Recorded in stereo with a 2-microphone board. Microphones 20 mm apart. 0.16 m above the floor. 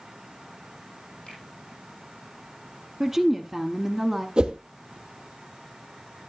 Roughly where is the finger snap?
Left.